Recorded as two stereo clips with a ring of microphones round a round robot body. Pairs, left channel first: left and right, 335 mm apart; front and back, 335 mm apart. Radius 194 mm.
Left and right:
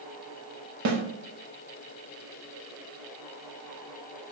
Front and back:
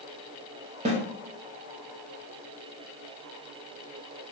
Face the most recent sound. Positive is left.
turn(degrees=-115)